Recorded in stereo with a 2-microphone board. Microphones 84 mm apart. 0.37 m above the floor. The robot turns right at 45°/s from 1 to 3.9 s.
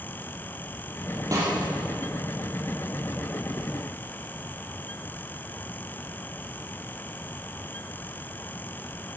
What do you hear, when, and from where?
1.3 s a snare drum: 40° right (ahead or behind), 4.5 m; by 1.5 s 50° right (ahead or behind), 4.5 m